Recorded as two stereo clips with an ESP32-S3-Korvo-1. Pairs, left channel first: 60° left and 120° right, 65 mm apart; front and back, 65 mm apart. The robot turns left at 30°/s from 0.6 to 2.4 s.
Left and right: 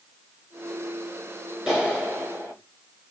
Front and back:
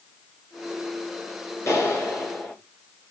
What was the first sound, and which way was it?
A clap, 45° right.